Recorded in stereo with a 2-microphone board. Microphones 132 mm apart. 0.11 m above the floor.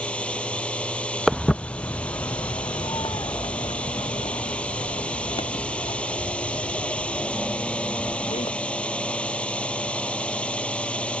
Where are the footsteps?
Centre (ahead or behind); by 8.5 s 45° left (ahead or behind).